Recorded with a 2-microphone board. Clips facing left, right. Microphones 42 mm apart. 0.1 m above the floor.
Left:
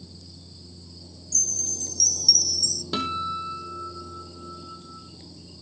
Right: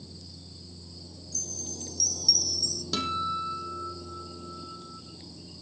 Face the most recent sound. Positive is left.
turn(degrees=20)  # may be behind; listen again after turning